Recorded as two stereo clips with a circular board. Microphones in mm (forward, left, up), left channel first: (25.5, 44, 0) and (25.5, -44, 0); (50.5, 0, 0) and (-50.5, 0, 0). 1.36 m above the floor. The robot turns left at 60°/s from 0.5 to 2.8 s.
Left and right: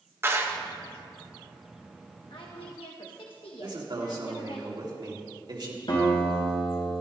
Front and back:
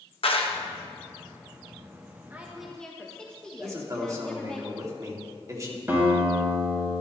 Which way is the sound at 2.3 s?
110° left.